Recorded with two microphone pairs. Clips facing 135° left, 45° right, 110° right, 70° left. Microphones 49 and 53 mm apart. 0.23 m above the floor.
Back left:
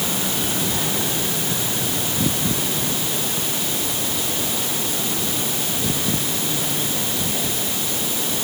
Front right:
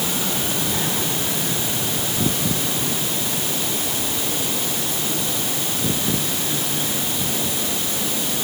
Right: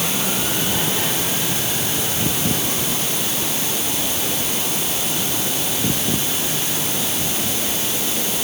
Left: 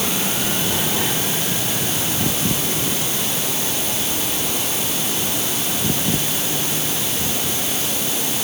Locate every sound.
Only background noise.